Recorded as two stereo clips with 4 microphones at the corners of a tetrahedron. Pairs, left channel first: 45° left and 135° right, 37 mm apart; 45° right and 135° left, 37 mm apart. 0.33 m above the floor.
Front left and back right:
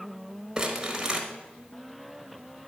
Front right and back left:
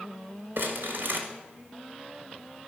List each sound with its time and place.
0.6 s crumpling: 150° left, 1.3 m